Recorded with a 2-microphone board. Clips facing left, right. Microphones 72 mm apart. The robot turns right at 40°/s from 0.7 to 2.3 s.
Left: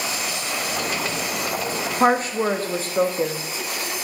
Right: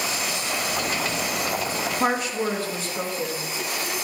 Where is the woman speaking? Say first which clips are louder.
Left 6 dB; 35° left (ahead or behind), 0.5 m; by 3.4 s 40° left (ahead or behind), 0.5 m.